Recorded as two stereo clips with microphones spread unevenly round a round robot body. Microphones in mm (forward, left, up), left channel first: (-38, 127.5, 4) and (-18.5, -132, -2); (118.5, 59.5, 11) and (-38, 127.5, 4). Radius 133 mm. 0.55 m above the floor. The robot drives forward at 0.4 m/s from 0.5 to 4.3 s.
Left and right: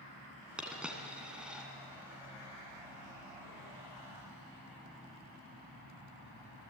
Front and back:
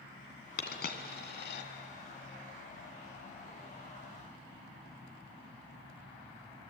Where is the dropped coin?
Straight ahead, 2.5 m.